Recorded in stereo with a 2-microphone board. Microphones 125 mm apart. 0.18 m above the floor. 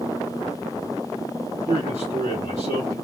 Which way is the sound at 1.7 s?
35° left (ahead or behind).